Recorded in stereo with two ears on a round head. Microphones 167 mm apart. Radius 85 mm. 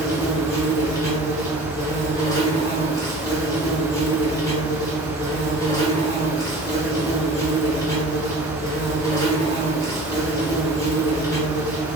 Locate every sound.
0.0 s an insect: 15° left (ahead or behind), 1.1 m